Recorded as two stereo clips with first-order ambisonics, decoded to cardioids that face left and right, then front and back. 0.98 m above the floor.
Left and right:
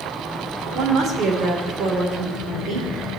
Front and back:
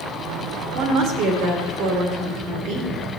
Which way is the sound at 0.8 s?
145° right.